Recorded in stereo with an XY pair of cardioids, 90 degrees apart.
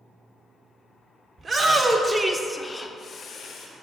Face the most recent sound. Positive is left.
turn(degrees=75)